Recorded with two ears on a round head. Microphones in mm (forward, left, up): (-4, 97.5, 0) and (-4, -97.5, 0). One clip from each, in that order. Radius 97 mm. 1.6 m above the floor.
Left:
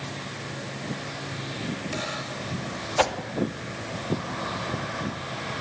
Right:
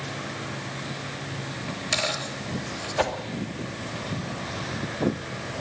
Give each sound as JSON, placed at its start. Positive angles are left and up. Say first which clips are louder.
{"t": 1.7, "sound": "a dropped coin", "louder": "right 7 dB", "side_deg": -75, "distance_m": 6.0}
{"t": 3.0, "sound": "a whoosh", "louder": "left 3 dB", "side_deg": 25, "distance_m": 2.0}